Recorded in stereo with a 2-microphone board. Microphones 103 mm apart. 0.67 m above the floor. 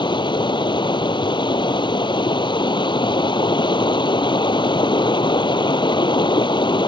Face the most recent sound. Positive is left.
turn(degrees=50)  # may be behind; listen again after turning